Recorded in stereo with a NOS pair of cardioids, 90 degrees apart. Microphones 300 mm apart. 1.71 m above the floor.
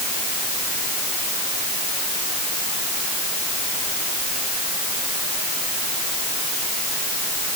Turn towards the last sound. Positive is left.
No sound to turn to.